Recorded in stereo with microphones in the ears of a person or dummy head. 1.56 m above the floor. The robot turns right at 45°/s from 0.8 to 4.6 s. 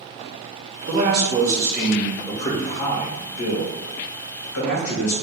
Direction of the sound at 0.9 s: 45° right.